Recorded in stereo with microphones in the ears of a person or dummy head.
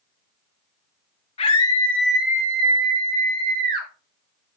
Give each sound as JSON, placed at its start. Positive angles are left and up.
{"t": 1.4, "sound": "a scream", "side_deg": 25, "distance_m": 1.2}